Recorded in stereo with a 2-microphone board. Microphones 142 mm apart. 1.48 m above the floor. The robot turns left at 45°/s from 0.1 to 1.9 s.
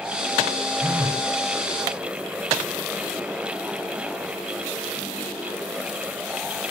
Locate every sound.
0.8 s a phone buzzing: 5° left (ahead or behind), 0.7 m; by 1.2 s 20° left (ahead or behind), 0.7 m